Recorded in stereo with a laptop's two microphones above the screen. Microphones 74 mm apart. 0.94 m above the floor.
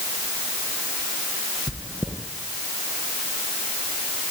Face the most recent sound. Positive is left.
turn(degrees=-15)  # may be behind; listen again after turning